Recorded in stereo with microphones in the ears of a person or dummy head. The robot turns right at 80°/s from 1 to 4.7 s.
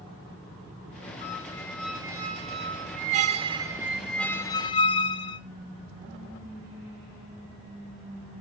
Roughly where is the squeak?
Behind left.